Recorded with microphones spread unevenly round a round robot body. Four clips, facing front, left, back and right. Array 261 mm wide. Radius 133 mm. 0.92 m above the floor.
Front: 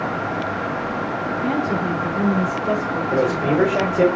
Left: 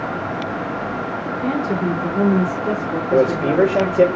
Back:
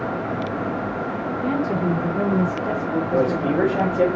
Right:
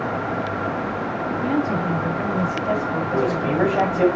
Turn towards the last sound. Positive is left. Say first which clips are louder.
# left 7 dB, front 2 dB
turn(degrees=65)